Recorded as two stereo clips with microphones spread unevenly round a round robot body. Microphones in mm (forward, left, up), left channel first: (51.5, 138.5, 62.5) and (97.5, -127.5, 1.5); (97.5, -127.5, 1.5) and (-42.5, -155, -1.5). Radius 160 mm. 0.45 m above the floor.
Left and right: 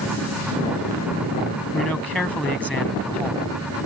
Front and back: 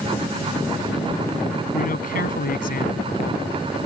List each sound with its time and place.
1.7 s a man speaking: 10° left